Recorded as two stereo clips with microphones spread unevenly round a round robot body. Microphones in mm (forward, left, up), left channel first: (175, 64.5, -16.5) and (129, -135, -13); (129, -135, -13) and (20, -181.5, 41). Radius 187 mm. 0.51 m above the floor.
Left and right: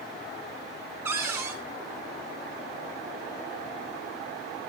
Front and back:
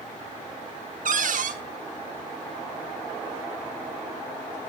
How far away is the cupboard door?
About 0.7 m.